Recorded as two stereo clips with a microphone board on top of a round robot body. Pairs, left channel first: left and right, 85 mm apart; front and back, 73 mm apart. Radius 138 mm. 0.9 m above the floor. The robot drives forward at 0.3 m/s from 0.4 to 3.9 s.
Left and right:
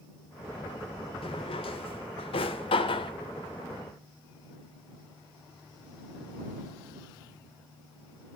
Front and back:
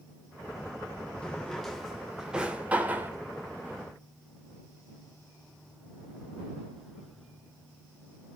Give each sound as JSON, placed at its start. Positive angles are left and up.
{"t": 1.2, "sound": "a drawer", "azimuth_deg": 80, "distance_m": 1.1}